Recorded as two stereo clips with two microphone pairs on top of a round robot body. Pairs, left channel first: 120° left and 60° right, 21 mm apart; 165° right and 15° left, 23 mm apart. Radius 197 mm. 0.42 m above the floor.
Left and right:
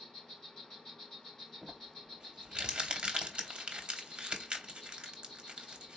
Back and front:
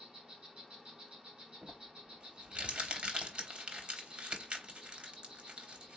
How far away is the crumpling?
About 2.5 m.